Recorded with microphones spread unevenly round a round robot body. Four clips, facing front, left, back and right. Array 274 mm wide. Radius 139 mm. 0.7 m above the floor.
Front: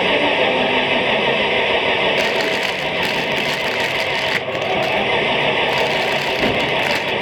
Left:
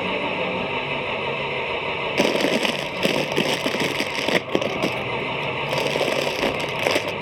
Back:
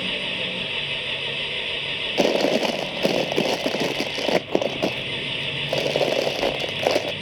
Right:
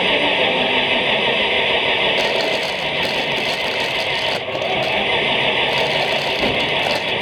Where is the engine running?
35° right.